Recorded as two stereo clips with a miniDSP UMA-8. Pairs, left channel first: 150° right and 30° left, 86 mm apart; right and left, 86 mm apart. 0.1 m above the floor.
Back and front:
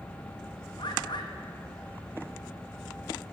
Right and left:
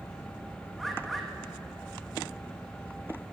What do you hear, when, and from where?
0.8 s a bird: straight behind, 1.0 m